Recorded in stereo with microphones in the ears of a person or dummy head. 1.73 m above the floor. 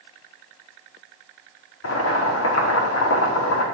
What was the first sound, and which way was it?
Boiling, 85° left.